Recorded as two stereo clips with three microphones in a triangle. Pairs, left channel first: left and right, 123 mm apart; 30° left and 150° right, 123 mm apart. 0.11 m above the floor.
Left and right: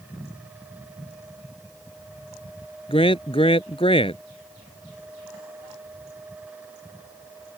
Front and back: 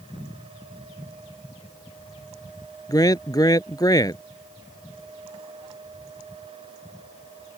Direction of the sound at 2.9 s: 80° left.